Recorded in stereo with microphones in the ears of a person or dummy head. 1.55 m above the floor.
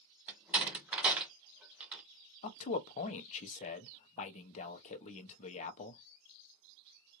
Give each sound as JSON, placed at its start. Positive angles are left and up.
{"t": 0.3, "sound": "a door slam", "side_deg": -5, "distance_m": 0.7}
{"t": 2.4, "sound": "a man speaking", "side_deg": 40, "distance_m": 0.8}